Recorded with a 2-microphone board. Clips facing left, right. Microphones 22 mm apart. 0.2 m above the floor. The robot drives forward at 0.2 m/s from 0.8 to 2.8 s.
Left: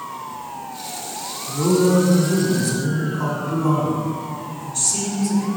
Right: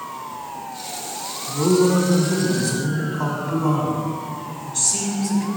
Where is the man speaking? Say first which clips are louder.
Even; 25° right (ahead or behind), 1.2 m.